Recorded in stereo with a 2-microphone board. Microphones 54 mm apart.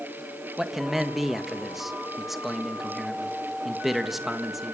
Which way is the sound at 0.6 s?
5° right (ahead or behind).